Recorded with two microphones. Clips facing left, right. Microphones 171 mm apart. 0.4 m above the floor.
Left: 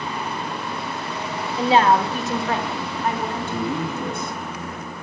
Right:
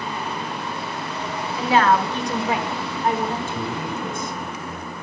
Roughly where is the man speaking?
Left.